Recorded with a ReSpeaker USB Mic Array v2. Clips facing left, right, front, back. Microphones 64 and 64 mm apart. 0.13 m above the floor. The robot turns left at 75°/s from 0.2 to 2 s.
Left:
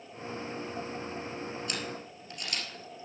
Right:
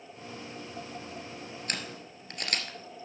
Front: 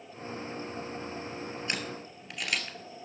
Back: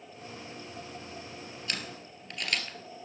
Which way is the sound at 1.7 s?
60° right.